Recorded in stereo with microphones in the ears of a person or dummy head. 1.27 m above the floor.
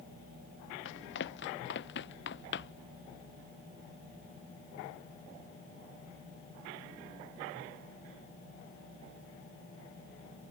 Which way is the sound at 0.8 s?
70° left (ahead or behind).